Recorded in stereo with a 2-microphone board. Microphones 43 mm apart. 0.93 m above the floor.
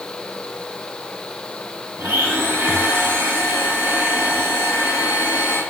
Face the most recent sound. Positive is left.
turn(degrees=-80)